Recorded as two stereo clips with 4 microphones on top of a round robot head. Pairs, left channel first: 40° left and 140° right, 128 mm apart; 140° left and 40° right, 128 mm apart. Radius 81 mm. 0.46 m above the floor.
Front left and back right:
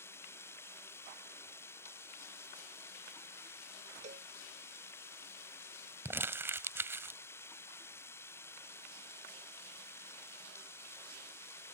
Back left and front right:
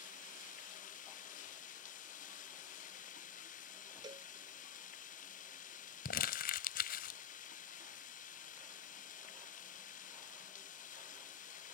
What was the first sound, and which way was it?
Running water, 110° left.